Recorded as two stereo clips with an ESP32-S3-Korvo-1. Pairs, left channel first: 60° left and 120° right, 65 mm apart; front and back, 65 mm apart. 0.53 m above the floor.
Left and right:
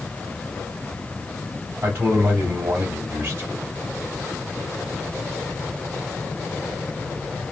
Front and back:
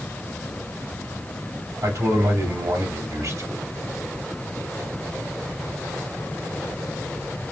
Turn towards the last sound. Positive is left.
turn(degrees=-170)